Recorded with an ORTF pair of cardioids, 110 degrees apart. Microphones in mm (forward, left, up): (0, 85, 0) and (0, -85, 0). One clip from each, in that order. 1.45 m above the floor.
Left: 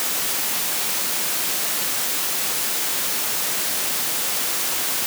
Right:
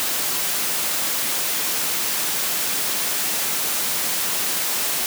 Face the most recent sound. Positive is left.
No sound to turn to.